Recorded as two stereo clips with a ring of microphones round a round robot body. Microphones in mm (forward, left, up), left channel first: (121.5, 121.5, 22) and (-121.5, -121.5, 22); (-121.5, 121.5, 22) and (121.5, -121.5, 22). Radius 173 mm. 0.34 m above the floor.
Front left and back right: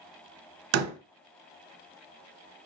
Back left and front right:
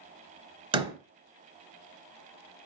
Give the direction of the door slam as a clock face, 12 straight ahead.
4 o'clock.